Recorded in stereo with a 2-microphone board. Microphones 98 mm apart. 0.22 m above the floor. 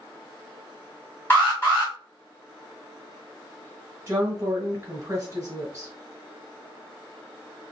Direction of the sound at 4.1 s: 30° right (ahead or behind).